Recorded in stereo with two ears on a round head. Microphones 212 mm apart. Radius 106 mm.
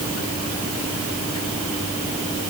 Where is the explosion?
No explosion in this recording.